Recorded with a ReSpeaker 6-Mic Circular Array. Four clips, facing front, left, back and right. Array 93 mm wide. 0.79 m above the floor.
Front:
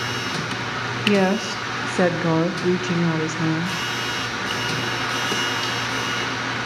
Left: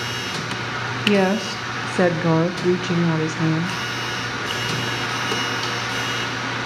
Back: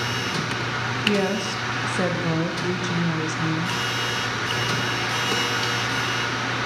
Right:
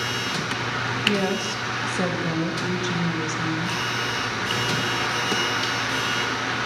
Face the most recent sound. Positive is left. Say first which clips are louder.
# left 8 dB, front 5 dB
turn(degrees=55)